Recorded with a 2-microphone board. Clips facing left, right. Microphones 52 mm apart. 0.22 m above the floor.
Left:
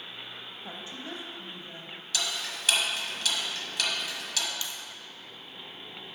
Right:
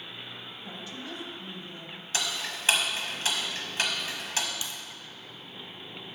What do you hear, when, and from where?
0.6 s a woman speaking: 25° left (ahead or behind), 1.0 m
2.1 s ticking: 35° right (ahead or behind), 1.1 m
4.6 s a crack: 20° right (ahead or behind), 1.4 m